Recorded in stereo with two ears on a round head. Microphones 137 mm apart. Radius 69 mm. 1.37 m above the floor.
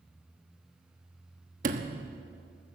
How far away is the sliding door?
About 1.2 m.